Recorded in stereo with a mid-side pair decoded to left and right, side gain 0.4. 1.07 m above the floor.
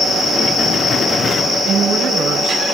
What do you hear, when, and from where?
1.6 s a woman speaking: 60° right, 9.5 m